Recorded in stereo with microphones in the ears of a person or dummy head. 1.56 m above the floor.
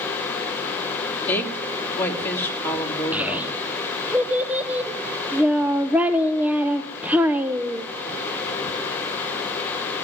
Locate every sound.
1.3 s a woman speaking: 20° left (ahead or behind), 2.5 m
3.1 s a child speaking: 5° right (ahead or behind), 0.6 m